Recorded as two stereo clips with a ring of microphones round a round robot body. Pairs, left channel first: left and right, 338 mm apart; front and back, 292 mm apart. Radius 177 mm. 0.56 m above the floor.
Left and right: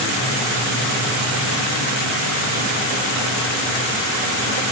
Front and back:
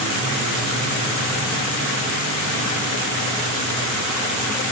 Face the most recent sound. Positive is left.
No sound to turn to.